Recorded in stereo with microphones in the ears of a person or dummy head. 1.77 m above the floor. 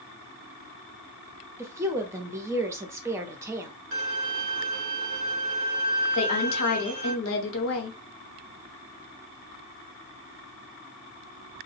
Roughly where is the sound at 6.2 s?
Left.